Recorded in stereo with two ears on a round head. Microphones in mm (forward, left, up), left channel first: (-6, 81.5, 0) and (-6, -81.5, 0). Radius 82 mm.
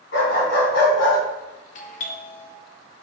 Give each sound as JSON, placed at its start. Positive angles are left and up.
{"t": 0.1, "sound": "a dog barking", "side_deg": 70, "distance_m": 3.5}
{"t": 1.8, "sound": "a doorbell", "side_deg": 40, "distance_m": 0.9}